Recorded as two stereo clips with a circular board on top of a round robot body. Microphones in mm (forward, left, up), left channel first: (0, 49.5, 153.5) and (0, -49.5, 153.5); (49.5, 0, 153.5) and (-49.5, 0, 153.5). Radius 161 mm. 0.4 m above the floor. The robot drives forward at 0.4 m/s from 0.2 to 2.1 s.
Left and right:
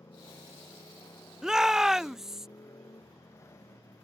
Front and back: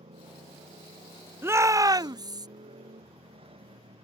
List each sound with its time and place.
0.0 s a motorcycle: 155° left
1.4 s a shout: 165° right; by 2.5 s 175° right